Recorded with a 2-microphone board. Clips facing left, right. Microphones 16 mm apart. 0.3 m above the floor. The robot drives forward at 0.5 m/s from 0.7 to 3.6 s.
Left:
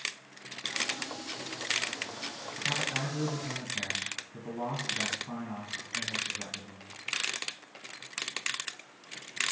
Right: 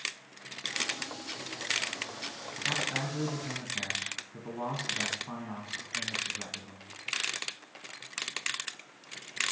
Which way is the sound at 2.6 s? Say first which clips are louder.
Even; 35° right (ahead or behind).